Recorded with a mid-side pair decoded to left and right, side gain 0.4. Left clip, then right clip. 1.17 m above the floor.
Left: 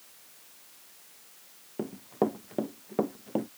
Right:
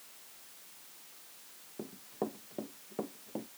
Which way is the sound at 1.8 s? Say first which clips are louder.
Left 10 dB; 60° left.